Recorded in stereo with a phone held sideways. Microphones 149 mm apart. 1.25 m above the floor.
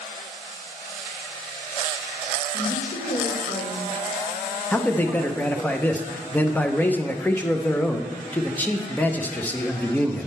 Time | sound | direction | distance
2.5 | a woman speaking | 60° left (ahead or behind) | 2 m
4.7 | a man speaking | 10° left (ahead or behind) | 0.5 m